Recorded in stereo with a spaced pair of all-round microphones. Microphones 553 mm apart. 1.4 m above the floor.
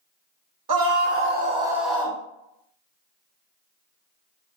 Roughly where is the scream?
Right.